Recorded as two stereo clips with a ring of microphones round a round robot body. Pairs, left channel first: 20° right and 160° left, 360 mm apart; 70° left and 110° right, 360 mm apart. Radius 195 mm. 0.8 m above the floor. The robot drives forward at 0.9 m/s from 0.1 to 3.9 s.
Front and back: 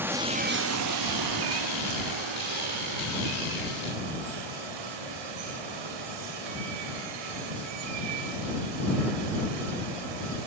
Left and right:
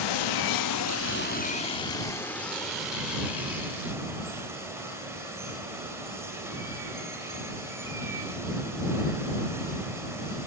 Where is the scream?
I don't hear a scream.